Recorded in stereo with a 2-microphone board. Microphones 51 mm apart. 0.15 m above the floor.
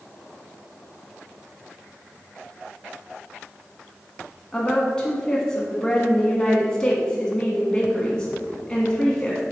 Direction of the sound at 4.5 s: 15° left (ahead or behind).